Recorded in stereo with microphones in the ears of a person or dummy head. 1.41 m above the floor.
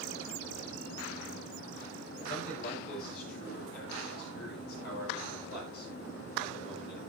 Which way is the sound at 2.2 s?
60° left (ahead or behind).